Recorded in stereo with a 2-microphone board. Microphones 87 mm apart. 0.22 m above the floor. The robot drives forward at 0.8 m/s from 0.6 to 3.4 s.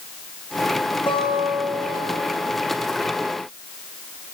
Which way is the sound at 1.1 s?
60° left (ahead or behind).